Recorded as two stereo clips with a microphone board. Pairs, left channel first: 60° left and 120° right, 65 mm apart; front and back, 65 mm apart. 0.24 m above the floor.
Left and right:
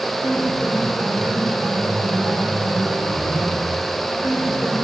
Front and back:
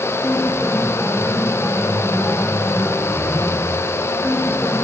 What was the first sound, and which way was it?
A piano, 85° left.